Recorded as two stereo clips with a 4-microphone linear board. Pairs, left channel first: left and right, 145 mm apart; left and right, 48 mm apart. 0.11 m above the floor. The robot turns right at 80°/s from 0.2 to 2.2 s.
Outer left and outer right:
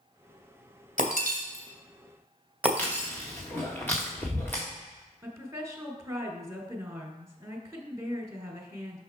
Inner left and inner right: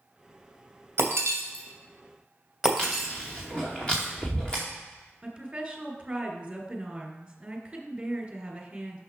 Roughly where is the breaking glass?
Right.